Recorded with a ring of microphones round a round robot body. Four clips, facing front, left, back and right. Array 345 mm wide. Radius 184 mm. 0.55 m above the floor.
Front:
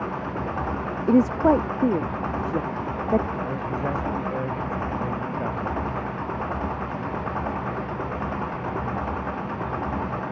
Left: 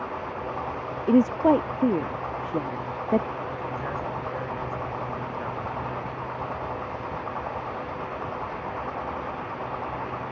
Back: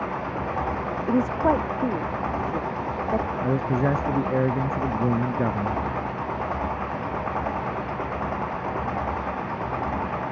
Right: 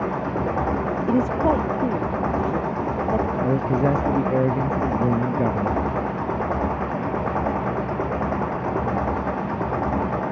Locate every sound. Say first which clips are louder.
0.0 s an engine running: right 8 dB, even; 75° right
1.1 s a woman speaking: left 2 dB, front 4 dB; 25° left
3.4 s a man speaking: right 11 dB, back 4 dB; 120° right